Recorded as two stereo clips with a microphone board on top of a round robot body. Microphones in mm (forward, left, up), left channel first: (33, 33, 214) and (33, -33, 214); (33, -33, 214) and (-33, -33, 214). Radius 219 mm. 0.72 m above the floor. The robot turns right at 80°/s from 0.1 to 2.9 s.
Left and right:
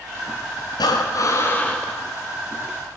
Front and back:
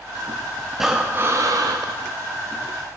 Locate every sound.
0.8 s breathing: 90° left, 0.6 m; by 1.9 s 175° right, 0.6 m